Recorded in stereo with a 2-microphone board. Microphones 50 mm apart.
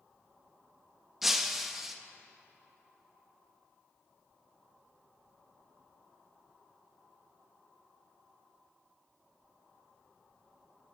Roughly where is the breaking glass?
Centre.